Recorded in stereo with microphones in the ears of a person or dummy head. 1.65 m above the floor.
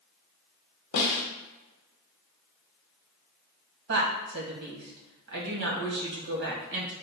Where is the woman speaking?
60° right (ahead or behind), 1.3 m.